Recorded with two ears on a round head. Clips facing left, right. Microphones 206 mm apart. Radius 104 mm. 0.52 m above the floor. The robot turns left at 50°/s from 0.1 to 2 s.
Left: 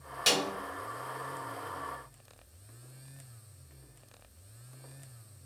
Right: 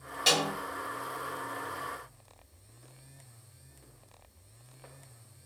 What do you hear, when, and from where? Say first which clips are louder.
0.3 s a snare drum: right 1 dB; 15° left (ahead or behind), 1.5 m; by 0.5 s 10° left (ahead or behind), 1.5 m